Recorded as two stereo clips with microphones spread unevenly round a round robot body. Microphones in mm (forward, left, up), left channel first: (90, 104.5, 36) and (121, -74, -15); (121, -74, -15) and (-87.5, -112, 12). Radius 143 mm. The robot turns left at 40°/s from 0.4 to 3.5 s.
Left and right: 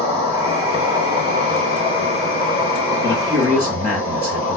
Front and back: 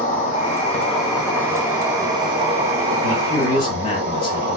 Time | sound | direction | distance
0.0 | an insect | 25° right | 2.5 m
3.0 | a man speaking | 10° right | 1.1 m